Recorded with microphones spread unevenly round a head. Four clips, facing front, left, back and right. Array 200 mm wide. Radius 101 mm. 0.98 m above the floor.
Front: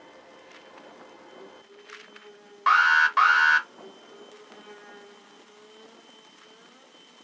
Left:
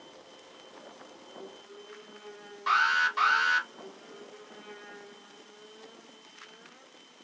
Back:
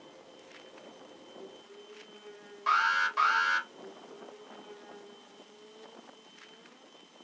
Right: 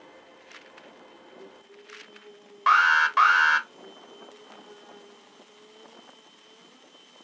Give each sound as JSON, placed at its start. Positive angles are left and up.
{"t": 2.7, "sound": "an alarm", "azimuth_deg": -45, "distance_m": 1.4}